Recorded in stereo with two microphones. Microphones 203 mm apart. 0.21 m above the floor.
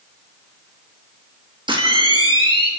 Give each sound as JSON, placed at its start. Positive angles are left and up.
{"t": 1.7, "sound": "a camera shutter", "side_deg": -25, "distance_m": 4.5}